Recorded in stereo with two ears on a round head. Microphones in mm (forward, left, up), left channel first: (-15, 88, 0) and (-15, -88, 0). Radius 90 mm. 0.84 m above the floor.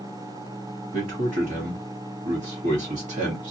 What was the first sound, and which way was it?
A man speaking, 35° right (ahead or behind).